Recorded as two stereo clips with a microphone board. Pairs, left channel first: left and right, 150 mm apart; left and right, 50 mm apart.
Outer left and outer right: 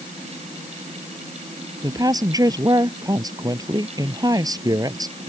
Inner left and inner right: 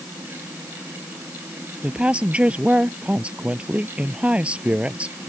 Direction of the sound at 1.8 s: 25° right (ahead or behind).